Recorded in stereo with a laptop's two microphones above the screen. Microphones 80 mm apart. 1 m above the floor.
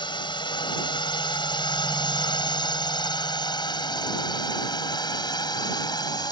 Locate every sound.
0.0 s a drone: 70° left (ahead or behind); by 6.3 s 60° left (ahead or behind)